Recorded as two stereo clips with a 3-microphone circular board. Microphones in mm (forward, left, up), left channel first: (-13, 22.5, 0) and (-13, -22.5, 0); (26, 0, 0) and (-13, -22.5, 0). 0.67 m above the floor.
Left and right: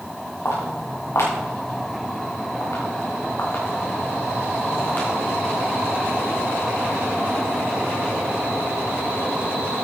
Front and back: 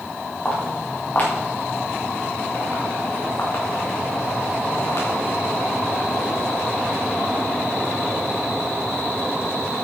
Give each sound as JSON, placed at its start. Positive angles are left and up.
{"t": 0.5, "sound": "footsteps", "azimuth_deg": 95, "distance_m": 5.5}